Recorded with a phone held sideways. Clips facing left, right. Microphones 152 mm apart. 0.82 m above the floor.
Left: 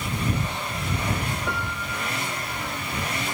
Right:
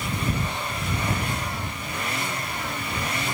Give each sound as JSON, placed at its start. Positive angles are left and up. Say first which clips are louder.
{"t": 1.5, "sound": "a piano", "louder": "left 2 dB", "side_deg": 85}